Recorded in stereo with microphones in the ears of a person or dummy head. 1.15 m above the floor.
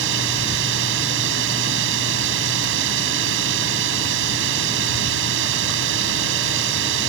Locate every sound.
0.0 s a drone: 70° right (ahead or behind)